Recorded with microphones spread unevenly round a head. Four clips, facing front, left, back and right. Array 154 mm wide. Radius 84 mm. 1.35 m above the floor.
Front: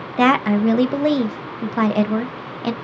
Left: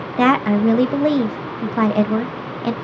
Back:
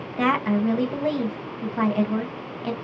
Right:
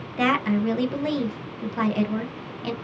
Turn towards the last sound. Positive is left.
turn(degrees=20)